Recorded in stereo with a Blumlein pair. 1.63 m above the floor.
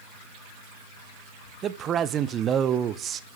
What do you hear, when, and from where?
1.6 s a man speaking: 25° right, 1.1 m